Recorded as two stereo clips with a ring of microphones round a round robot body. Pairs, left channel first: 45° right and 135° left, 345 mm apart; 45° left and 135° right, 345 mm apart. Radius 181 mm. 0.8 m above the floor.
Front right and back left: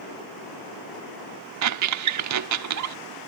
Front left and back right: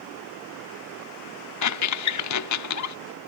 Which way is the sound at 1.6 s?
90° left.